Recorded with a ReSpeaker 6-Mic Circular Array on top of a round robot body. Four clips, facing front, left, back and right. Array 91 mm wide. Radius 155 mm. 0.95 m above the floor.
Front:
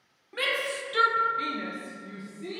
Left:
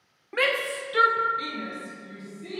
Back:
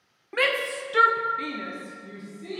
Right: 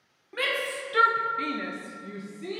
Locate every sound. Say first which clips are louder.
0.3 s a shout: left 4 dB, back 5 dB; 145° left, 0.9 m; by 2.6 s 75° right, 1.2 m